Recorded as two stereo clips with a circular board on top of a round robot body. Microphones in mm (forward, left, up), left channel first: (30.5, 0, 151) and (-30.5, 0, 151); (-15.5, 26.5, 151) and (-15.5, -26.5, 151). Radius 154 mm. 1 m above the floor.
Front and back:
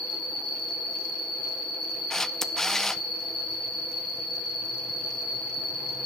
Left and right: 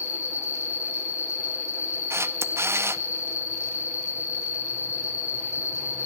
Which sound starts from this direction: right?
A camera shutter, at 2.1 s.